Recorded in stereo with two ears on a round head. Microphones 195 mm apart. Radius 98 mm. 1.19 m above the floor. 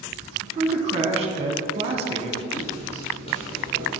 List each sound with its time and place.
0.4 s a man speaking: 30° right (ahead or behind), 1.0 m
2.5 s footsteps: 40° left (ahead or behind), 2 m; by 3.9 s 15° left (ahead or behind), 2 m